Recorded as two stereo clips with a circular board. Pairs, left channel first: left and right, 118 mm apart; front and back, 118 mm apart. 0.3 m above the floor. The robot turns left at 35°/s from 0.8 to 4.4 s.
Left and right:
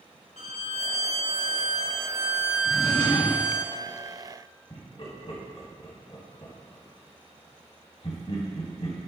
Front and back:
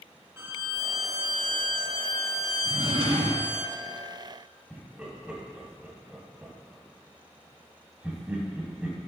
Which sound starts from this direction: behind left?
A drawer, at 2.6 s.